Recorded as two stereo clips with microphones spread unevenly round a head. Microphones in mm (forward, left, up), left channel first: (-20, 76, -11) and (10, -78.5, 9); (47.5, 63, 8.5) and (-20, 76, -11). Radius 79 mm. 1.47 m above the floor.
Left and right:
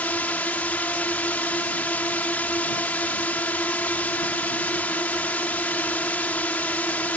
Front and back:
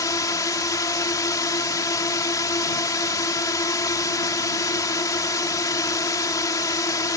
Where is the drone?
20° left.